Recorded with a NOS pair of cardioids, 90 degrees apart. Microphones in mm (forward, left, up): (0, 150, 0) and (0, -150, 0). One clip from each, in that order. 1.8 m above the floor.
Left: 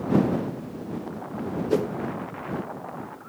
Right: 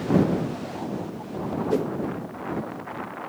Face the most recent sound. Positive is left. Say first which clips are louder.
# left 1 dB
turn(degrees=15)